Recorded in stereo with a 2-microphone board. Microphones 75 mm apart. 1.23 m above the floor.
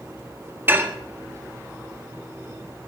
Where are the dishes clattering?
25° right (ahead or behind), 1.5 m.